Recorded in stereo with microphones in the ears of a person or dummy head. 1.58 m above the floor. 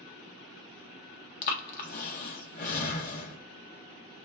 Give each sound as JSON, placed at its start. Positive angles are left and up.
{"t": 1.4, "sound": "breathing", "side_deg": 45, "distance_m": 0.6}